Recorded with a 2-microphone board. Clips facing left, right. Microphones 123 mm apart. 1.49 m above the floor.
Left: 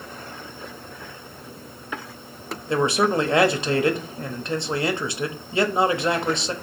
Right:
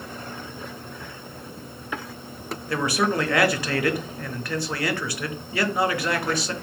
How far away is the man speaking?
About 0.6 m.